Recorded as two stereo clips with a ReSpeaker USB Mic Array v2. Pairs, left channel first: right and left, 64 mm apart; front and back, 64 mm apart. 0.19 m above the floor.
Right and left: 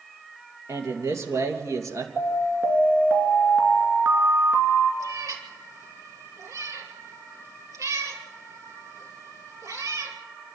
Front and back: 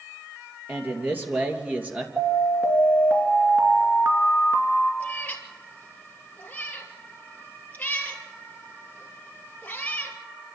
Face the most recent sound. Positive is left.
turn(degrees=65)